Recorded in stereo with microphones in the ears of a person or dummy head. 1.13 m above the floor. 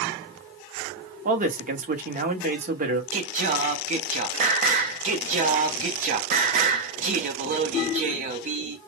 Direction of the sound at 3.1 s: 40° right (ahead or behind).